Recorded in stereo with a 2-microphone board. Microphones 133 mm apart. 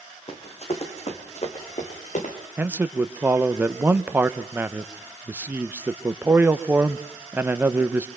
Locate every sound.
0.3 s running footsteps: 45° left (ahead or behind), 2.5 m; by 2.4 s 65° left (ahead or behind), 3.5 m
2.6 s a man speaking: 15° right (ahead or behind), 0.7 m